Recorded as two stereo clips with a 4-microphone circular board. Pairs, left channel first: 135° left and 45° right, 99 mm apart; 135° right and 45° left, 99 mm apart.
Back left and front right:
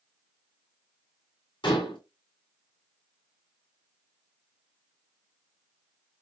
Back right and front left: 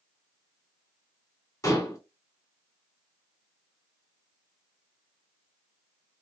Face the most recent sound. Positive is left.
turn(degrees=170)